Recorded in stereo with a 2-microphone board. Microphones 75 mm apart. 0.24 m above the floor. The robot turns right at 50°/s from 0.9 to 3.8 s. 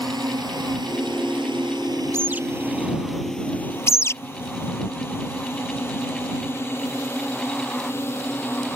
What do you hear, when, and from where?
0.0 s a drone: 60° right (ahead or behind); by 8.8 s 30° left (ahead or behind)
2.1 s a bird: 35° right (ahead or behind); by 2.4 s 20° right (ahead or behind)
3.9 s a bird: 35° left (ahead or behind)